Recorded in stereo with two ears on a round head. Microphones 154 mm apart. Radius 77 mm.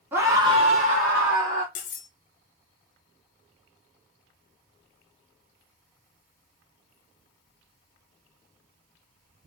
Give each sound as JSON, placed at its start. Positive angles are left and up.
{"t": 0.1, "sound": "a scream", "side_deg": -10, "distance_m": 1.2}
{"t": 1.8, "sound": "cutlery clinking", "side_deg": 45, "distance_m": 0.7}